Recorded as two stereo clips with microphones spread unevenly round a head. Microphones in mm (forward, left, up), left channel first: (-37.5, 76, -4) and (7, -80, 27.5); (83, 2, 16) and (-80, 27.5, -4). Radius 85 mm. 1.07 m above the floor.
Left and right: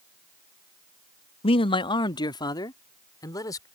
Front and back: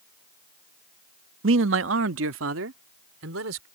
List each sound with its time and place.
1.4 s a man speaking: 165° left; by 3.6 s straight behind